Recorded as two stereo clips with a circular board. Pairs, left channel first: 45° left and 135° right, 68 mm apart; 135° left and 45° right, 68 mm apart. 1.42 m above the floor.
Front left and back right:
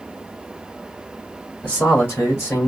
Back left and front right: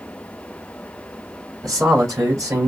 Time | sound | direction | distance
1.6 | a man speaking | 20° right | 3 m